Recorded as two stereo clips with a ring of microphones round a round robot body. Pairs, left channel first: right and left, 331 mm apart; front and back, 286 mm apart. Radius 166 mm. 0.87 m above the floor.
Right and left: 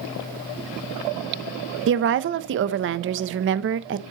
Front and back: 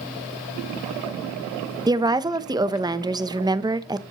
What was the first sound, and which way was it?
A woman speaking, 110° left.